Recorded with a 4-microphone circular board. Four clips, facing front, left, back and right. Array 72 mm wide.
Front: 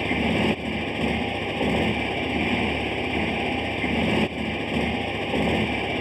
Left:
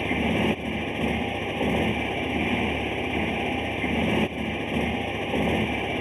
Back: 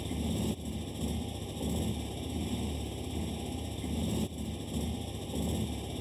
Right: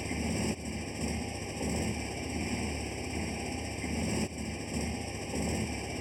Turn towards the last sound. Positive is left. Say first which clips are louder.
# left 10 dB, front 12 dB
turn(degrees=35)